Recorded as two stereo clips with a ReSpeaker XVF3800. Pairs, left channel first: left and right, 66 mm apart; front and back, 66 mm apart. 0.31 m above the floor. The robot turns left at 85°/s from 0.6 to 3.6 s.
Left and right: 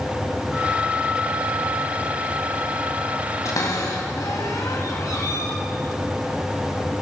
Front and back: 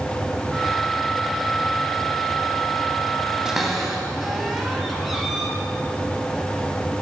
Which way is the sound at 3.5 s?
105° left.